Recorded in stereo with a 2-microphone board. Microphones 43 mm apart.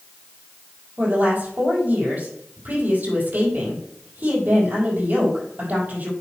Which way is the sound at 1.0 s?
45° right (ahead or behind).